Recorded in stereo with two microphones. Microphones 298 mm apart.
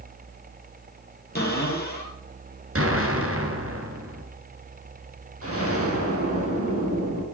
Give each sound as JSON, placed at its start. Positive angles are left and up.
{"t": 1.4, "sound": "a cupboard door", "side_deg": 35, "distance_m": 3.5}
{"t": 2.8, "sound": "an explosion", "side_deg": -50, "distance_m": 2.0}
{"t": 5.4, "sound": "an explosion", "side_deg": -50, "distance_m": 4.0}